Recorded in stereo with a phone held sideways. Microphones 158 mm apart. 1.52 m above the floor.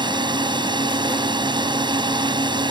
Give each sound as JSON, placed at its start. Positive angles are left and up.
{"t": 0.0, "sound": "a drone", "side_deg": -30}